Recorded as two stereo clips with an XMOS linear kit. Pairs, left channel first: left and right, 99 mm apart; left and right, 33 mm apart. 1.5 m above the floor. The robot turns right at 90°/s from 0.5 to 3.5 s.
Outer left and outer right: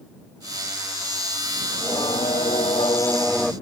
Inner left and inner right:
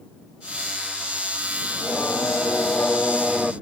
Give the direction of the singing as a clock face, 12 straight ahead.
11 o'clock.